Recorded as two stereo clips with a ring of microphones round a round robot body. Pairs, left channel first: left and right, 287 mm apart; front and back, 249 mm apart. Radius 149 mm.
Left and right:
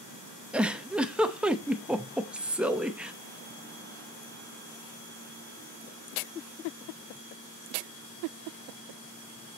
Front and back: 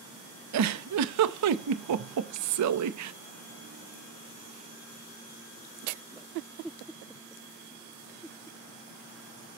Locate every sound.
0.5 s a giggle: 175° right, 0.7 m